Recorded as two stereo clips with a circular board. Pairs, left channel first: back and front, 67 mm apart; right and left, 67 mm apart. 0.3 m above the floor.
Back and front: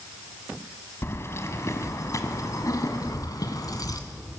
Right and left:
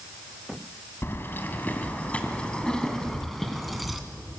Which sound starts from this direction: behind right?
Keys jangling, at 1.0 s.